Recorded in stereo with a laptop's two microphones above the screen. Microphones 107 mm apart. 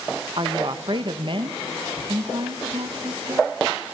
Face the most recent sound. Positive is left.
turn(degrees=-50)  # may be behind; listen again after turning